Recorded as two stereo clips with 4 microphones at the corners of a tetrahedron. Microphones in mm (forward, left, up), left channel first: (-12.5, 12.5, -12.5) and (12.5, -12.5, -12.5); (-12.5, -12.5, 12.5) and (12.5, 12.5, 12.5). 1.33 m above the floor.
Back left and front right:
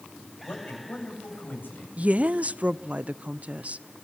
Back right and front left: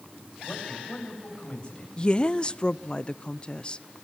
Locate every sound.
0.4 s a man speaking: 165° left, 8.5 m
2.0 s a woman speaking: 80° right, 0.5 m